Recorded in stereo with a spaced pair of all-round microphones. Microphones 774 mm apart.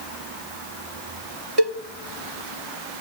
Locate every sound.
1.6 s a cowbell: 35° right (ahead or behind), 0.8 m